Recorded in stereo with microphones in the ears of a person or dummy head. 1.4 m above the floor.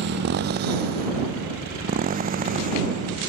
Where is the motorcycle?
60° right (ahead or behind); by 3.3 s 40° right (ahead or behind).